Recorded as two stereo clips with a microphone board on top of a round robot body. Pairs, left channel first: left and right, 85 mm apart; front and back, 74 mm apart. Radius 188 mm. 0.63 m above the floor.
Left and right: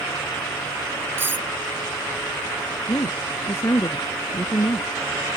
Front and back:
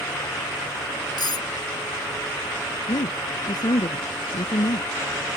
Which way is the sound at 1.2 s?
25° right.